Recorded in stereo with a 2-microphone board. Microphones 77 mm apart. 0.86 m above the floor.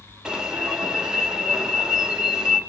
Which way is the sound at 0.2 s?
10° right (ahead or behind).